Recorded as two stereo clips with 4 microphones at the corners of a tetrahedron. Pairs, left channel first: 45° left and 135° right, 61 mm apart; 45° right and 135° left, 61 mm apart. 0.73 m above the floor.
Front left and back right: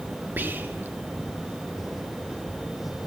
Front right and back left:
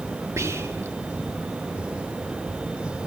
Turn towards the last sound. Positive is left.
turn(degrees=170)